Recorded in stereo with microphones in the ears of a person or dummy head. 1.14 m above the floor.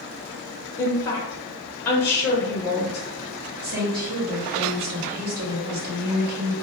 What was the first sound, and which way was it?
A woman speaking, 15° left (ahead or behind).